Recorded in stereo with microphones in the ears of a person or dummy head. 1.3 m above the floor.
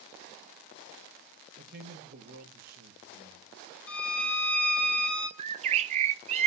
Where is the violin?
5° left (ahead or behind), 2 m.